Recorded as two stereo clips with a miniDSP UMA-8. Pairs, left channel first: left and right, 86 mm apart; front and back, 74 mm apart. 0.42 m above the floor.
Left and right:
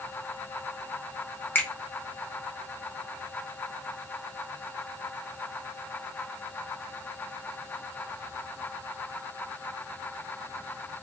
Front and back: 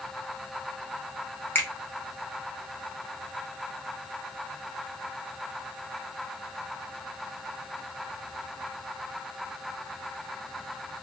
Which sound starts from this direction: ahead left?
A finger snap, at 1.6 s.